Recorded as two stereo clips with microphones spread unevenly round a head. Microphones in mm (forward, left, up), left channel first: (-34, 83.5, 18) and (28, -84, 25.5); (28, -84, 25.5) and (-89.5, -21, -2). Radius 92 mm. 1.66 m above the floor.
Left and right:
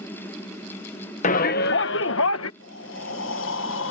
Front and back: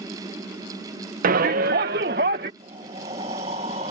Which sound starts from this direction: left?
Breathing, at 2.6 s.